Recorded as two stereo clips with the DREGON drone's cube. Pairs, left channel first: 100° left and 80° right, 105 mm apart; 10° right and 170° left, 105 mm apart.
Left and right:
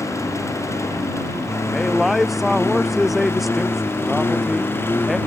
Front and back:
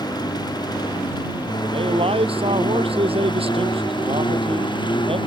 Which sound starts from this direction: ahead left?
A lawn mower, at 0.0 s.